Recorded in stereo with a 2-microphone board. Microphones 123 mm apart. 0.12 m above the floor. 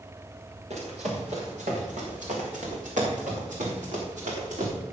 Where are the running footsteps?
65° right (ahead or behind), 5 m; by 4.7 s 80° right, 5 m.